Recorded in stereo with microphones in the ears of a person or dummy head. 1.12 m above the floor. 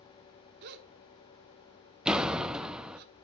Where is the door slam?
5° right (ahead or behind), 0.7 m.